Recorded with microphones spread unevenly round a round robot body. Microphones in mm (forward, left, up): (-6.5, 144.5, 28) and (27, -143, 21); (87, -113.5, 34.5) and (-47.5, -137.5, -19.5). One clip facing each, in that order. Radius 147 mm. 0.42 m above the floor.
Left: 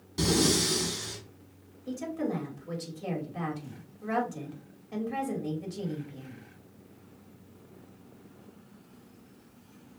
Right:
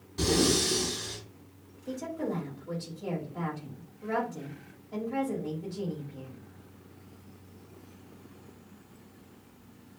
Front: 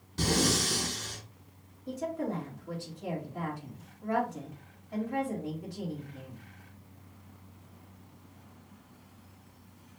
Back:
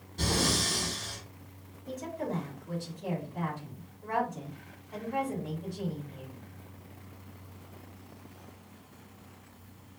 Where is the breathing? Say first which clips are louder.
Even, front 2 dB; 35° left, 1.9 m.